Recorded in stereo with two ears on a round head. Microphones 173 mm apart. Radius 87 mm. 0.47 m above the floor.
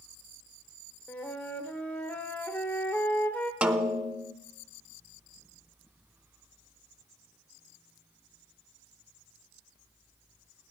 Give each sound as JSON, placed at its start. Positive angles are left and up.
{"t": 1.1, "sound": "a flute", "side_deg": 10, "distance_m": 1.2}
{"t": 3.6, "sound": "a snare drum", "side_deg": -5, "distance_m": 0.8}